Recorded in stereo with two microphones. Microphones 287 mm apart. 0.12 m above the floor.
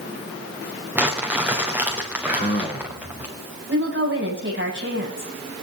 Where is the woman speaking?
40° right (ahead or behind), 9.5 m.